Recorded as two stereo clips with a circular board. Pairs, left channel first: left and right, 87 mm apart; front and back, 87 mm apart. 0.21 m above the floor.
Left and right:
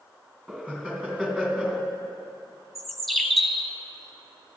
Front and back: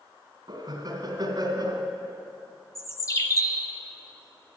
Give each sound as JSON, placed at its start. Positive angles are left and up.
{"t": 0.5, "sound": "laughter", "azimuth_deg": -160, "distance_m": 2.5}
{"t": 2.8, "sound": "a bird", "azimuth_deg": 5, "distance_m": 0.9}